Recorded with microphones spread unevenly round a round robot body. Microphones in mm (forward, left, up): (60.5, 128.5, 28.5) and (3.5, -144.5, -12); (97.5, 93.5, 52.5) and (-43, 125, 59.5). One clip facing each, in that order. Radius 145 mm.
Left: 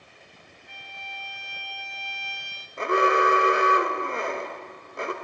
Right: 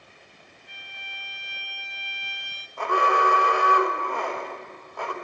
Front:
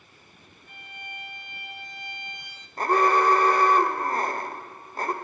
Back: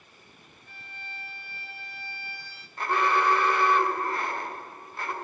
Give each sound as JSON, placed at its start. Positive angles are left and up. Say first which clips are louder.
{"t": 0.7, "sound": "a violin", "louder": "left 4 dB, front 3 dB", "azimuth_deg": -65, "distance_m": 0.8}
{"t": 2.8, "sound": "an alarm", "louder": "left 3 dB, front 5 dB", "azimuth_deg": 10, "distance_m": 1.8}